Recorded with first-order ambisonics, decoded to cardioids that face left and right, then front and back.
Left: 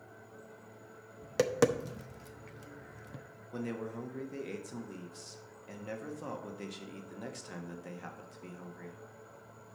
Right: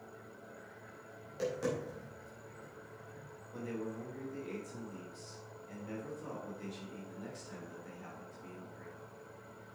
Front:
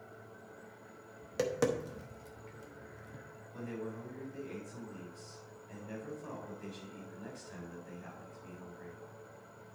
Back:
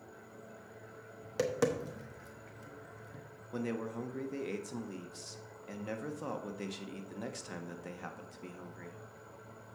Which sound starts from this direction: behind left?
A man speaking, at 3.5 s.